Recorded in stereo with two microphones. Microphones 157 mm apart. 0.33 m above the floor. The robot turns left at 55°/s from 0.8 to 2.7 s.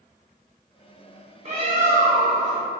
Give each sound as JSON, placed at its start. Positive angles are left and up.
{"t": 1.4, "sound": "a bird", "azimuth_deg": -55, "distance_m": 0.8}